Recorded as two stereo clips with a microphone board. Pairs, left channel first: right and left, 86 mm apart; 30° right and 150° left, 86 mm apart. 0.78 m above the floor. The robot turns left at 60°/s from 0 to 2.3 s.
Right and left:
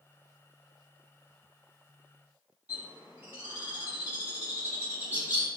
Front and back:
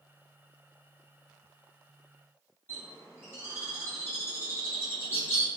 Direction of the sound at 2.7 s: 25° left.